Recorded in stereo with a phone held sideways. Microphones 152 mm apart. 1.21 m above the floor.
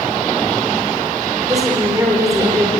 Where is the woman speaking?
20° right (ahead or behind), 4.5 m.